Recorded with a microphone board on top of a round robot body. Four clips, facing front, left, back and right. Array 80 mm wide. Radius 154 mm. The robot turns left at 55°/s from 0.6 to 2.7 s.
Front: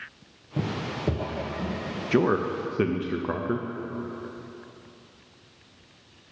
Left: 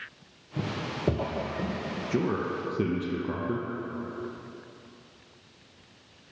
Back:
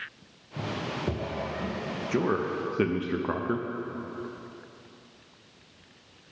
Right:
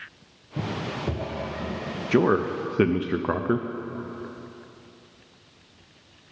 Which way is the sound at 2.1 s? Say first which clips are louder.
Right 8 dB, front 4 dB; 60° right.